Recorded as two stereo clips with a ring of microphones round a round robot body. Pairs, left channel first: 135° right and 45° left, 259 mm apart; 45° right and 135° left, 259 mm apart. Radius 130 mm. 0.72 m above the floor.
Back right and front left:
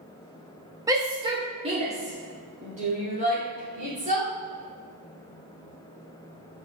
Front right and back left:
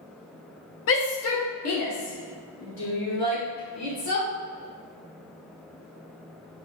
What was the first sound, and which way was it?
A shout, 30° right.